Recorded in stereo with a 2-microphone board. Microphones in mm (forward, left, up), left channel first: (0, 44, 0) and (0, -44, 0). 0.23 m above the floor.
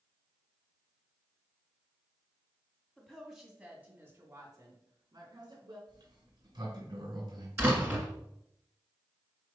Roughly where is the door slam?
Right.